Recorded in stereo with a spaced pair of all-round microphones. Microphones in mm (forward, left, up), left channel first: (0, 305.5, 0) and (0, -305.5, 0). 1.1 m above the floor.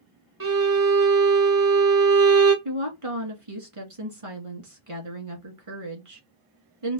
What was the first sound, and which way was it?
A violin, 35° right (ahead or behind).